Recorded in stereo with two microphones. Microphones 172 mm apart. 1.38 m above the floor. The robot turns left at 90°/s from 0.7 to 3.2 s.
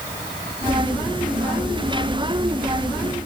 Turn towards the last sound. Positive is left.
No sound to turn to.